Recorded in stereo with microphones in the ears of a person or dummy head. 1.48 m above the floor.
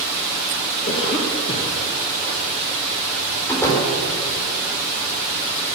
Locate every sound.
0.9 s a cough: 35° left (ahead or behind), 2 m
3.5 s a door slam: 15° left (ahead or behind), 4 m